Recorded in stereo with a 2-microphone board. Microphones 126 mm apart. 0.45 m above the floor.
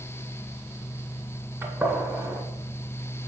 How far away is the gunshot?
About 1.5 m.